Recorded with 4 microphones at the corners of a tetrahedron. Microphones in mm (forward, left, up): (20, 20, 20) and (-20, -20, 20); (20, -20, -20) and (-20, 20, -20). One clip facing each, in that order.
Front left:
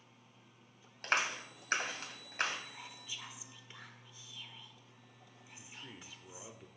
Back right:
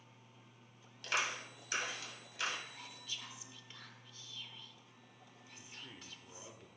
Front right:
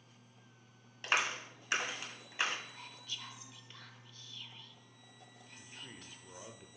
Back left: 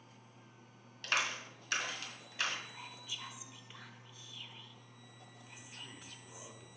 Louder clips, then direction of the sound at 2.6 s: Front left 1 dB, back left 1 dB; 80° left.